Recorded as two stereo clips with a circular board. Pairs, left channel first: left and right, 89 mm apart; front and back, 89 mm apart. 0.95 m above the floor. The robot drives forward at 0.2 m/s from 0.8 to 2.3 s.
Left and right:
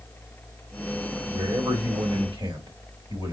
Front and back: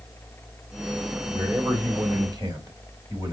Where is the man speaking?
130° right, 3 m; by 3.3 s 135° right, 3 m.